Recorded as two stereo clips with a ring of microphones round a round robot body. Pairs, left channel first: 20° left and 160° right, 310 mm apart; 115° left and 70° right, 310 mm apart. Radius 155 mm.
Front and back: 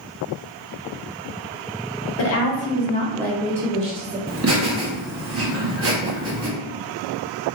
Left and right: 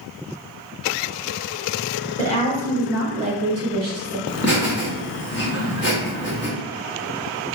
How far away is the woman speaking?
About 0.9 m.